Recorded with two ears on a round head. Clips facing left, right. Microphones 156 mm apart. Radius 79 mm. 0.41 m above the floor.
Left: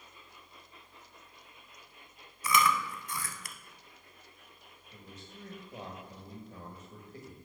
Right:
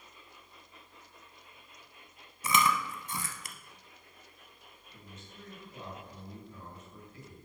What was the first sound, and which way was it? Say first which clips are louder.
Chewing: left 1 dB; 25° right (ahead or behind).